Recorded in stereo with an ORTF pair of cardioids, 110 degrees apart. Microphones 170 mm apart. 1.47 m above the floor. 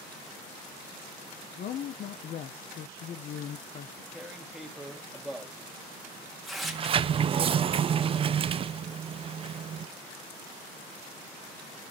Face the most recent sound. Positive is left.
turn(degrees=-35)